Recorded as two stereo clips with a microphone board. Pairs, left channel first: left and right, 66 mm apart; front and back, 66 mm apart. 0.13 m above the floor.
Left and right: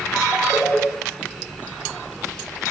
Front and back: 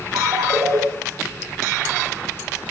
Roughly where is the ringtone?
Behind.